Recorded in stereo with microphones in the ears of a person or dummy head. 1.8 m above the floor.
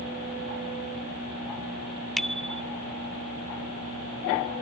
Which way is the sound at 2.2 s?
5° left (ahead or behind).